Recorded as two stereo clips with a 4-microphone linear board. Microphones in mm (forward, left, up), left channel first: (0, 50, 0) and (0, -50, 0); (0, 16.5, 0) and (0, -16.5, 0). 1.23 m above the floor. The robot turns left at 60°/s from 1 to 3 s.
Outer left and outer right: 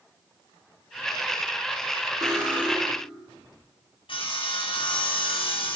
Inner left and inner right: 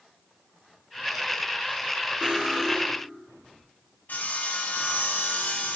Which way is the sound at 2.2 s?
140° right.